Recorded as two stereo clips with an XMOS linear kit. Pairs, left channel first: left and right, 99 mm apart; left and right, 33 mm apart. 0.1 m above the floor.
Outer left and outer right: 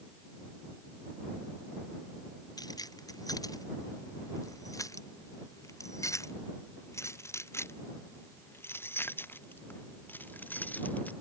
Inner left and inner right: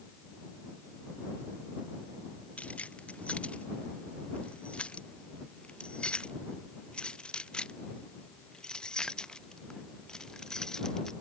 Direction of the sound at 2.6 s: 40° left (ahead or behind).